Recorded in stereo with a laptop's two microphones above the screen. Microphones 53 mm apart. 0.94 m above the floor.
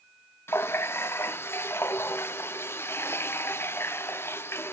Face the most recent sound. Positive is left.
turn(degrees=50)  # may be behind; listen again after turning